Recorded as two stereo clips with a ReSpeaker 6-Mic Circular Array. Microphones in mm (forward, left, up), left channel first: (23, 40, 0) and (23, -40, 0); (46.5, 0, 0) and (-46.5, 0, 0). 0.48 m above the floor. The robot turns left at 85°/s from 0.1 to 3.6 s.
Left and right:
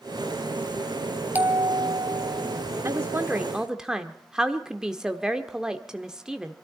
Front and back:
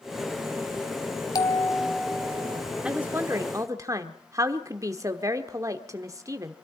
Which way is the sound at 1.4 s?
30° right.